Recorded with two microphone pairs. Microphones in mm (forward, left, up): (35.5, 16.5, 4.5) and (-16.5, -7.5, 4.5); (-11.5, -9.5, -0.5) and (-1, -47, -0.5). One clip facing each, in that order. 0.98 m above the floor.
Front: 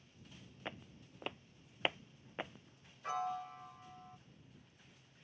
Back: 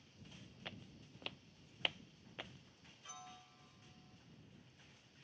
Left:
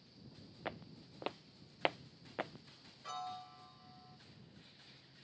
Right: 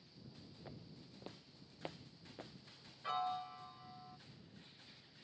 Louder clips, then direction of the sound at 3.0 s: Front 18 dB, right 5 dB; 10° right.